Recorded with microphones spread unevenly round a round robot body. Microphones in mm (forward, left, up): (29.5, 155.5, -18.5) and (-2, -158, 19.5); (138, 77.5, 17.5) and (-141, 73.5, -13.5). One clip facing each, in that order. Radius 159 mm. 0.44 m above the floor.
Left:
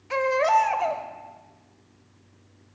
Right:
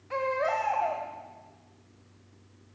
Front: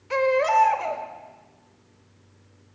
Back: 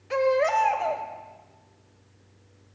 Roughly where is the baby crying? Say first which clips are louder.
Left 6 dB, front 1 dB; left.